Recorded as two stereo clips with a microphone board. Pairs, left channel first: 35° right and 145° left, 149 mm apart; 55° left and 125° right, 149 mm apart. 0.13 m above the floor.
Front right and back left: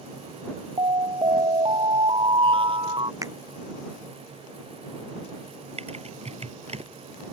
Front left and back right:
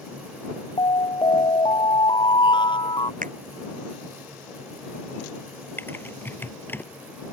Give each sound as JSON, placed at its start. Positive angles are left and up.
{"t": 0.8, "sound": "an alarm", "azimuth_deg": 105}
{"t": 3.2, "sound": "a finger snap", "azimuth_deg": -145}
{"t": 5.8, "sound": "typing on a keyboard", "azimuth_deg": 125}